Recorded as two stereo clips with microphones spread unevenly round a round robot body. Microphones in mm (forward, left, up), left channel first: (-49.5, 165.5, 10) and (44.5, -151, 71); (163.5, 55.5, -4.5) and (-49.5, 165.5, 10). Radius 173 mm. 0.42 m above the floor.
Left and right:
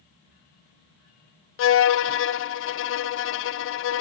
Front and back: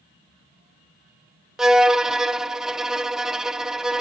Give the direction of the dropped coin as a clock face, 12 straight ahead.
I don't hear a dropped coin.